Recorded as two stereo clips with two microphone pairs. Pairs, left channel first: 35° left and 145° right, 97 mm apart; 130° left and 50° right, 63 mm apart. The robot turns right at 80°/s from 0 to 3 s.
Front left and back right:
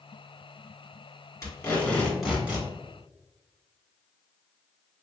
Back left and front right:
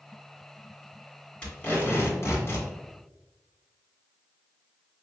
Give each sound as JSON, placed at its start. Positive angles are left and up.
{"t": 1.4, "sound": "tape being pulled", "azimuth_deg": 55, "distance_m": 1.9}